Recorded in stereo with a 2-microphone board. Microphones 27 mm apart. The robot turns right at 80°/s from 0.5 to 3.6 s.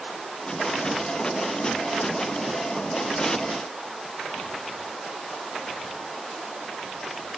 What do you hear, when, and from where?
Only background noise.